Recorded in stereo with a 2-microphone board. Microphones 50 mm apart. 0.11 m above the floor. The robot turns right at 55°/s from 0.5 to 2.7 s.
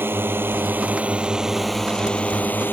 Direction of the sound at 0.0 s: 65° right.